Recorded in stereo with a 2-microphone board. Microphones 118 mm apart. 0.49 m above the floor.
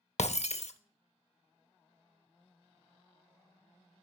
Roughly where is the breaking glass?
Left.